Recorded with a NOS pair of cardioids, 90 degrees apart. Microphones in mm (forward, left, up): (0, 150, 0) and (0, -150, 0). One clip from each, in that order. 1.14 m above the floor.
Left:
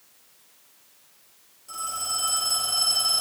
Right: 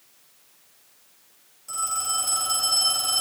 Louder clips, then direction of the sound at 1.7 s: Right 3 dB; 25° right.